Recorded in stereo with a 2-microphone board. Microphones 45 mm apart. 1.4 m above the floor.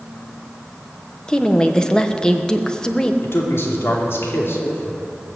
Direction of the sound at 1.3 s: 15° left (ahead or behind).